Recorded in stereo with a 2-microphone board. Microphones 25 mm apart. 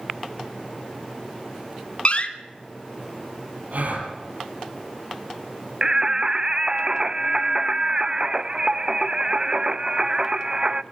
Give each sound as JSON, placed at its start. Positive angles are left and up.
{"t": 2.0, "sound": "a door slam", "side_deg": 50, "distance_m": 1.7}
{"t": 3.7, "sound": "a gasp", "side_deg": -80, "distance_m": 8.0}
{"t": 5.8, "sound": "singing", "side_deg": -30, "distance_m": 0.6}